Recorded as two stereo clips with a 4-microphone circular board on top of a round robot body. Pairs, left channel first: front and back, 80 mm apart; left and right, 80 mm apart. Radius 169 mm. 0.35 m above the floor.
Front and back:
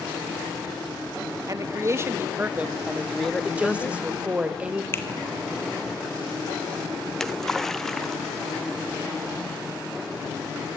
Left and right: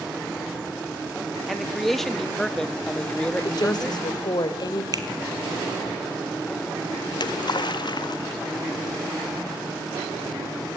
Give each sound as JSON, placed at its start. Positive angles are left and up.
{"t": 1.5, "sound": "a man speaking", "azimuth_deg": 180, "distance_m": 1.4}
{"t": 3.4, "sound": "a woman speaking", "azimuth_deg": 110, "distance_m": 2.5}
{"t": 4.9, "sound": "a finger snap", "azimuth_deg": -55, "distance_m": 2.5}
{"t": 7.1, "sound": "a splash", "azimuth_deg": 85, "distance_m": 1.0}